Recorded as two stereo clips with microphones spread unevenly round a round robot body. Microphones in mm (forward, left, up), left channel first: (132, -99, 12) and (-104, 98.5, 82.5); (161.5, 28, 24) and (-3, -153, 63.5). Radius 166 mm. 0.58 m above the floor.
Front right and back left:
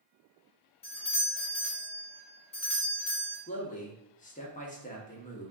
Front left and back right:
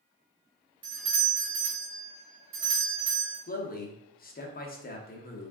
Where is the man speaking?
10° left, 0.9 m.